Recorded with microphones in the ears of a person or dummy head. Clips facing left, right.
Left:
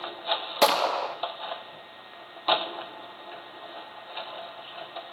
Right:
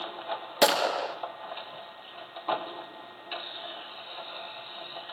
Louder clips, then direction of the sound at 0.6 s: Left 1 dB; 15° right (ahead or behind).